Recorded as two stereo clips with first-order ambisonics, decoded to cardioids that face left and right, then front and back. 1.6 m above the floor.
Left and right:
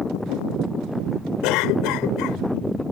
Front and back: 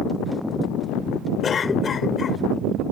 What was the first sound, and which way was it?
A cough, 65° left.